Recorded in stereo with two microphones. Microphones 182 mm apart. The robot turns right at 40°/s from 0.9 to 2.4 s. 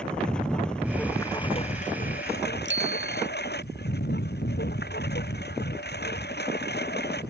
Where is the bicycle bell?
85° right.